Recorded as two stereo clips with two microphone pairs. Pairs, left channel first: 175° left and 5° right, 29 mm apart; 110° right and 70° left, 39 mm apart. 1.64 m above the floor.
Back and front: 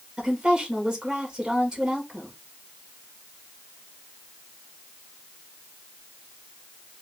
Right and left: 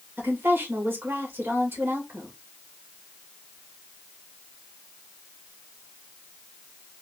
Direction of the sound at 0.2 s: 60° left.